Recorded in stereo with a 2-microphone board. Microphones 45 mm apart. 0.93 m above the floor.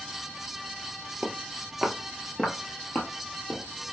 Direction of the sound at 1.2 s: 25° right (ahead or behind).